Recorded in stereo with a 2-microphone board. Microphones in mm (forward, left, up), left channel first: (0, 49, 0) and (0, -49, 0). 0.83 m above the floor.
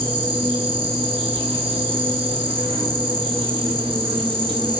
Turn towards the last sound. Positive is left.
turn(degrees=-70)  # may be behind; listen again after turning